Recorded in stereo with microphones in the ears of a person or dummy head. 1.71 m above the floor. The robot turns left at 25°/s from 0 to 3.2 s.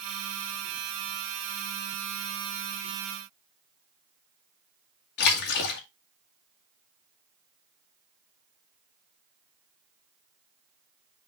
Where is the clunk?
I don't hear a clunk.